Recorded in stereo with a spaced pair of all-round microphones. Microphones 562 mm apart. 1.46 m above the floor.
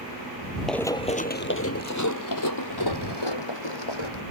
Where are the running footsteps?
Centre (ahead or behind); by 4.2 s 55° left (ahead or behind).